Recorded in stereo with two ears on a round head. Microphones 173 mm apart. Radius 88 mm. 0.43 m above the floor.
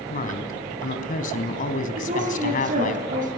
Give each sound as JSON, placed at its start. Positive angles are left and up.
{"t": 0.1, "sound": "a woman speaking", "side_deg": 45, "distance_m": 3.5}
{"t": 2.0, "sound": "a woman speaking", "side_deg": -45, "distance_m": 8.0}